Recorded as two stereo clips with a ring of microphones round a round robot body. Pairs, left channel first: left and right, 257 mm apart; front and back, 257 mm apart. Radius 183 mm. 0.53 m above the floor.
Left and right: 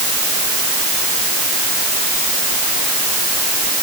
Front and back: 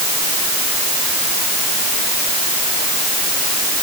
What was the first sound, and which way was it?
Only background noise.